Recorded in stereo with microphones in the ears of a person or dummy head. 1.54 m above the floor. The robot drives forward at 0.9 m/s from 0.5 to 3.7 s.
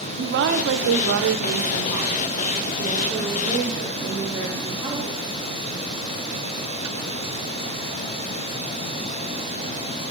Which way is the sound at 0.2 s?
70° right (ahead or behind).